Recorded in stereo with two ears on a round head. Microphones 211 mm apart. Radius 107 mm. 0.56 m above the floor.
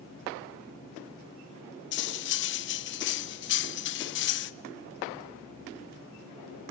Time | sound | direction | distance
1.9 | cutlery clinking | 50° left (ahead or behind) | 0.6 m